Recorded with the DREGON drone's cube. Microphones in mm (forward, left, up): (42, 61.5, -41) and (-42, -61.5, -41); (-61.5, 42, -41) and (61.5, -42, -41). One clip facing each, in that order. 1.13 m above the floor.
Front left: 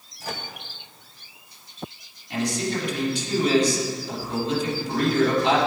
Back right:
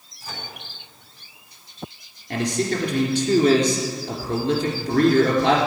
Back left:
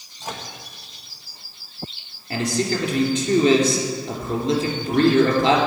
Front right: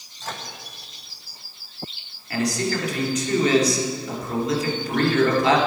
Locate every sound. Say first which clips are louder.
0.2 s a microwave: front left 3 dB, back left 1 dB; 70° left, 1.0 m
2.3 s a man speaking: back right 3 dB, back left 1 dB; 155° right, 2.5 m